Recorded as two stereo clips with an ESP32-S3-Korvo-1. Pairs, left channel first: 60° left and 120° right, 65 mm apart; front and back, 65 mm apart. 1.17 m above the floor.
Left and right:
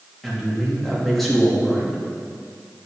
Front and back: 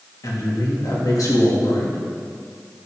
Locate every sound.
0.2 s a man speaking: 30° right, 2 m